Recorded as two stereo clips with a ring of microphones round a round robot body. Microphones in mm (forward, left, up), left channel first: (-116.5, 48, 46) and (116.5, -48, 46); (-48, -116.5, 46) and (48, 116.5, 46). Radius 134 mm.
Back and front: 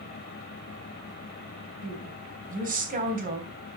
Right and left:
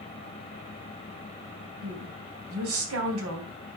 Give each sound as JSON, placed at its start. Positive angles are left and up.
{"t": 1.8, "sound": "a woman speaking", "azimuth_deg": 35, "distance_m": 3.0}